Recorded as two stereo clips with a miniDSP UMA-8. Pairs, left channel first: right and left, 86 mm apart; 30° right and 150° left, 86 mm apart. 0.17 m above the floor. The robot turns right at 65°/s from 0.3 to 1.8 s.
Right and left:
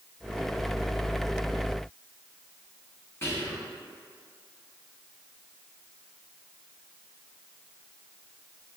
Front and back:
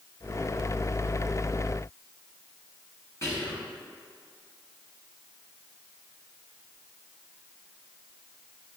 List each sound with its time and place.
3.2 s whispering: 50° right, 1.3 m